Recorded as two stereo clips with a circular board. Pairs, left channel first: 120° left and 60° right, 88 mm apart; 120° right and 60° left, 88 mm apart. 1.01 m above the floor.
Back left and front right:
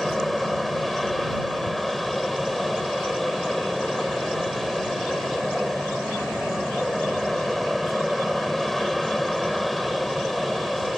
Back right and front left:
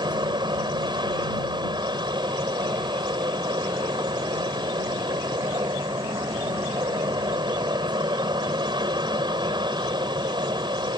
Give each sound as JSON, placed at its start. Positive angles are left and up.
{"t": 0.0, "sound": "an aircraft", "azimuth_deg": 30}